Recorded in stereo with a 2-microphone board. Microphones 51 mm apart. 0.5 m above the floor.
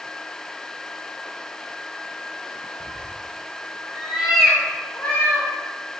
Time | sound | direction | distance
2.8 | a cat meowing | 75° right (ahead or behind) | 1.2 m